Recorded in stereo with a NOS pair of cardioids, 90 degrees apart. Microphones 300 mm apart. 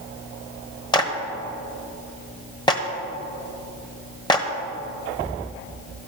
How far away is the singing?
I don't hear singing.